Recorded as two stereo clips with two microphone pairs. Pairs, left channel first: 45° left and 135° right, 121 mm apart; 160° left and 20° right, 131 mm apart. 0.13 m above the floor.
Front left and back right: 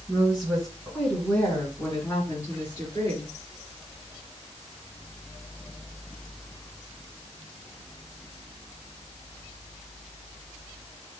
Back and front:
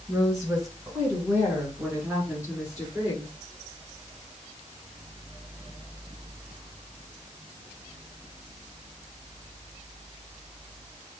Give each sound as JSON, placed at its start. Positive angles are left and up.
{"t": 0.1, "sound": "a woman speaking", "azimuth_deg": -55, "distance_m": 1.9}